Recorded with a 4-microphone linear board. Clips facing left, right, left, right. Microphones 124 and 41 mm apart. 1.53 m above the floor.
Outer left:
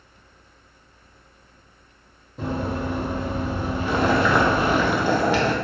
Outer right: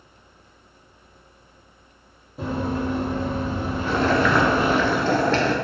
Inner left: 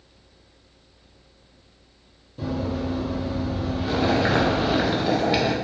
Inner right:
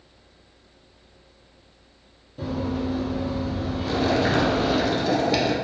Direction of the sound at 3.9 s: 15° left (ahead or behind).